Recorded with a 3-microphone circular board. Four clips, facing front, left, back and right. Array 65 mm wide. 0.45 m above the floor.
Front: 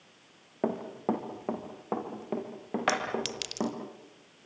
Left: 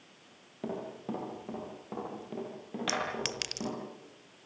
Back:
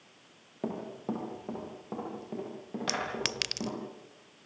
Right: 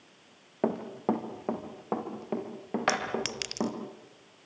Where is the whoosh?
I don't hear a whoosh.